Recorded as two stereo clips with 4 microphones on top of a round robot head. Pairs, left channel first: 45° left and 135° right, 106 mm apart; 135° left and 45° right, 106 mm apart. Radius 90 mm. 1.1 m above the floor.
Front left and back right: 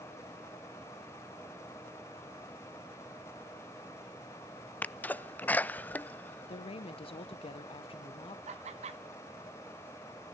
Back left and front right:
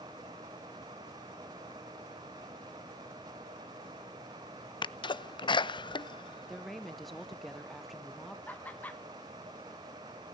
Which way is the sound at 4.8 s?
115° left.